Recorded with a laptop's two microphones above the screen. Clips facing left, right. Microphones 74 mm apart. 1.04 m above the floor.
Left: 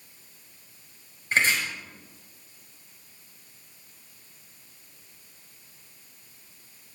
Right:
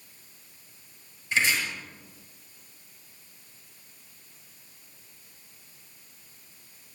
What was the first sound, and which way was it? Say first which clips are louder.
Chopping: left 2 dB; 45° left (ahead or behind).